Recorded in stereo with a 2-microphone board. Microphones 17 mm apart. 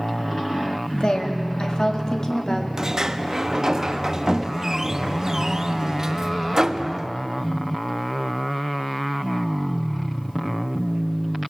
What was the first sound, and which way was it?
A woman speaking, 70° left (ahead or behind).